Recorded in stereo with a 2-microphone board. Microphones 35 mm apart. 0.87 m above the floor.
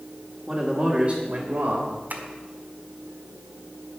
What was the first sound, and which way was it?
A man speaking, 15° right (ahead or behind).